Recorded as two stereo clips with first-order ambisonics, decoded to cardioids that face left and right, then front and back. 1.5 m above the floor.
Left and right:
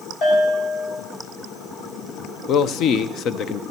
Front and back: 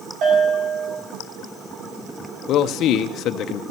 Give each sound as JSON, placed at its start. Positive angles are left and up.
{"t": 0.2, "sound": "a bell", "azimuth_deg": 145, "distance_m": 6.0}
{"t": 2.5, "sound": "a man speaking", "azimuth_deg": 45, "distance_m": 0.7}